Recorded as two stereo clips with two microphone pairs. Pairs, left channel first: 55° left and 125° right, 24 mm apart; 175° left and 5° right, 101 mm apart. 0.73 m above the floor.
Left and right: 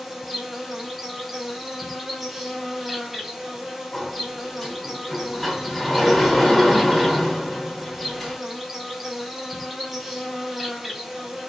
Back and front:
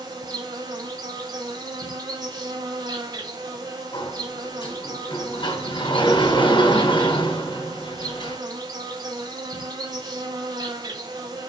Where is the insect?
40° right, 4.5 m.